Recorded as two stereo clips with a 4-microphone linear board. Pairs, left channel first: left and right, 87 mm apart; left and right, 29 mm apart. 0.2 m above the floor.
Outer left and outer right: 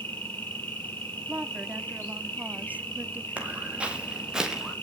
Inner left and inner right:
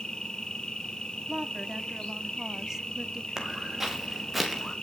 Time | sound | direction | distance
0.0 | an insect | 25° left (ahead or behind) | 9 m
1.3 | a woman speaking | 15° right (ahead or behind) | 1.0 m
3.4 | footsteps | 15° right (ahead or behind) | 6 m